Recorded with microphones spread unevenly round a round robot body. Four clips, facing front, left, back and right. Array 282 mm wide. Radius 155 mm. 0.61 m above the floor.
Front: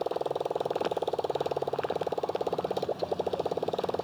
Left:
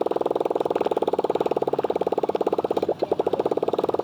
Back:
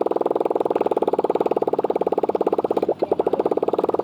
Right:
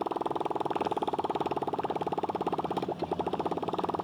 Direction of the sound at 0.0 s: 170° left.